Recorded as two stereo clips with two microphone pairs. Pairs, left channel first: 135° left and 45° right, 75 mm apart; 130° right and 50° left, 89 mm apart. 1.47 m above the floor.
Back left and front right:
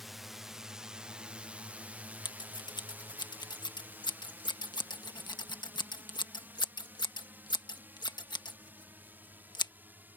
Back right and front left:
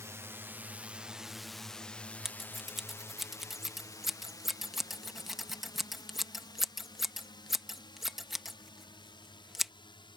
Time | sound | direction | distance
0.0 | a drone | 45° left | ?
2.2 | scissors | 135° left | ?